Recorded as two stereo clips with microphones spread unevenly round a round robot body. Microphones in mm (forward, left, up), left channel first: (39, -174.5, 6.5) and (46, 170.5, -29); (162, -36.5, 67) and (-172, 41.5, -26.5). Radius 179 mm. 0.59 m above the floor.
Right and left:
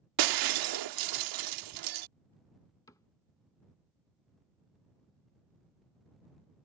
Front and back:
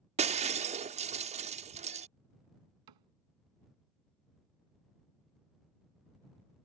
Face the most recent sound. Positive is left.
turn(degrees=-170)